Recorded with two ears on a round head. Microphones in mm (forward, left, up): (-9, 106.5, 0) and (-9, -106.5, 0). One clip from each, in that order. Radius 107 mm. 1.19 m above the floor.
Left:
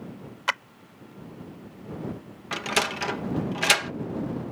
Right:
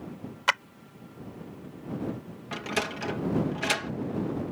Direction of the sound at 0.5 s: 10° right (ahead or behind).